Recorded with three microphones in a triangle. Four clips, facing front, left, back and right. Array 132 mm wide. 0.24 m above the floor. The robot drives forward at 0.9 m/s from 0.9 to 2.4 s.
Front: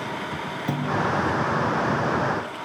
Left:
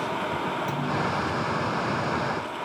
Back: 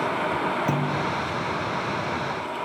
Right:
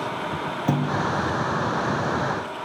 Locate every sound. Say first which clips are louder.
0.7 s a clunk: right 4 dB, even; 95° right, 4.5 m; by 1.1 s 100° right, 4.5 m